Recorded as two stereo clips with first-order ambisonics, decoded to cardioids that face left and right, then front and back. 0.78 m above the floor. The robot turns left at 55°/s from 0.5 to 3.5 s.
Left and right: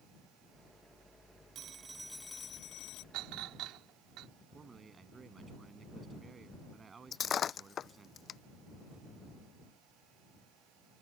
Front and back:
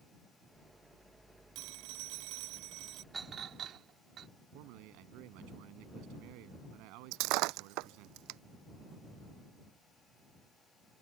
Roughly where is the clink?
Right.